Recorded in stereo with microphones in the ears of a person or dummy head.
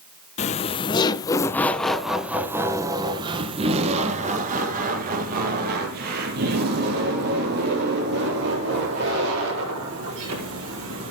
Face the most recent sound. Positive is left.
turn(degrees=-70)  # may be behind; listen again after turning